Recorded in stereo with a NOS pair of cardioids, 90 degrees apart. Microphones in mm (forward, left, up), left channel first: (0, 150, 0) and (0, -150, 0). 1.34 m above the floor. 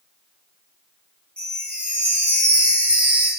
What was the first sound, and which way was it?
A chime, 5° left.